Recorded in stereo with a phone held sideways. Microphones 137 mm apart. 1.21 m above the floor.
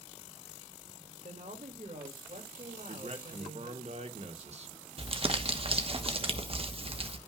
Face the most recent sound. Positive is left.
turn(degrees=-45)  # may be behind; listen again after turning